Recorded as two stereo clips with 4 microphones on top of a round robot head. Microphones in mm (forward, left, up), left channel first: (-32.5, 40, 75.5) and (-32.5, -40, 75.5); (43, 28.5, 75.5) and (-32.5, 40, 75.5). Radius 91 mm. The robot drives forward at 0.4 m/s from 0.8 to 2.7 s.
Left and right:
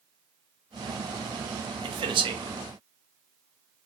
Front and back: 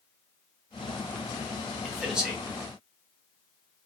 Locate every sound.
1.8 s a man speaking: 100° right, 1.1 m; by 2.4 s 110° right, 1.1 m